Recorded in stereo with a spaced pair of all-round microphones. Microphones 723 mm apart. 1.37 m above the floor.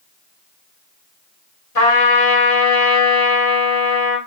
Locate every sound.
1.8 s a trumpet: 50° left (ahead or behind), 1.1 m